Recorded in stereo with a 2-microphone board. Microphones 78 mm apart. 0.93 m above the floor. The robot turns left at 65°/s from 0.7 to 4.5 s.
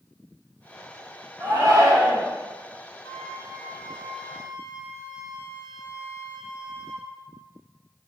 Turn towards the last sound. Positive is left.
turn(degrees=0)